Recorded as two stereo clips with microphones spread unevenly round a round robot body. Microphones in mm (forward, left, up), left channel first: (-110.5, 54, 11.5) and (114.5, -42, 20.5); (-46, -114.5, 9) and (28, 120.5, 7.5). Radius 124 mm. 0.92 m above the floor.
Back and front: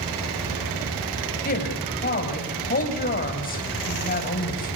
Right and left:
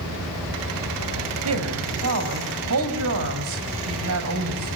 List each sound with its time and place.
1.4 s a woman speaking: 100° left, 5.5 m